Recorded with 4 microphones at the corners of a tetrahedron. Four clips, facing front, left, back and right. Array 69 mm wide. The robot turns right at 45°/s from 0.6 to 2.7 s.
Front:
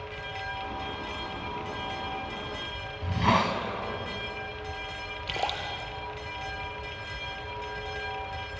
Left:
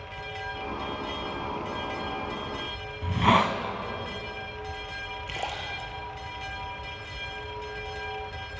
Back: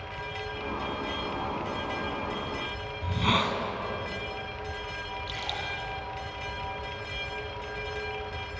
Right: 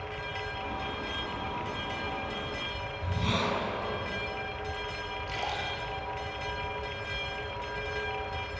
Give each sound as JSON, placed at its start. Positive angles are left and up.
{"t": 3.0, "sound": "a hiss", "azimuth_deg": 75, "distance_m": 1.9}
{"t": 5.3, "sound": "a splash", "azimuth_deg": 15, "distance_m": 3.5}